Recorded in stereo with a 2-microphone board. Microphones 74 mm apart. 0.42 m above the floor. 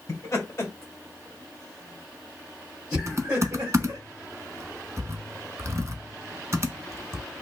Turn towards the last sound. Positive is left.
turn(degrees=-45)  # may be behind; listen again after turning